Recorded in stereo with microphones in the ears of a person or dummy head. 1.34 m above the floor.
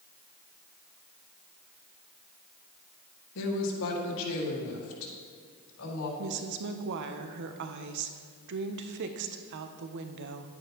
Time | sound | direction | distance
3.4 | a woman speaking | 70° left (ahead or behind) | 1.7 m
6.2 | a woman speaking | 60° right (ahead or behind) | 0.8 m